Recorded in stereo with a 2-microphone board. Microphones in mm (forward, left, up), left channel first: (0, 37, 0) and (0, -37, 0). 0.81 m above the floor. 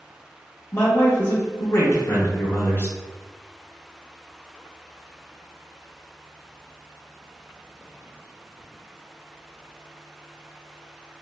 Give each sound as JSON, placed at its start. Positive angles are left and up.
{"t": 0.7, "sound": "a man speaking", "side_deg": 30, "distance_m": 0.5}